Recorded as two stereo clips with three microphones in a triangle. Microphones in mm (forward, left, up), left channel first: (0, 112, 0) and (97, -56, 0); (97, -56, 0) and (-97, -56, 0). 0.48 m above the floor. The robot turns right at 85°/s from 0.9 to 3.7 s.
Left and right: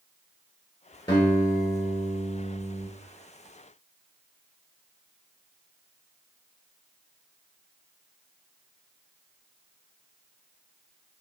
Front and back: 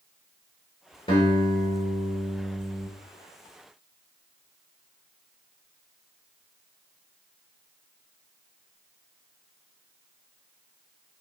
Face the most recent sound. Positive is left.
turn(degrees=-80)